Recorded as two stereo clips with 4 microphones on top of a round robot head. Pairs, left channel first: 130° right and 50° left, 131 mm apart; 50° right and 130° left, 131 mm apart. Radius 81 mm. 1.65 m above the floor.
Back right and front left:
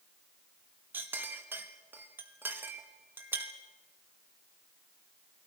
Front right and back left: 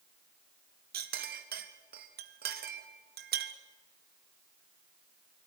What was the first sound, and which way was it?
A clink, 125° left.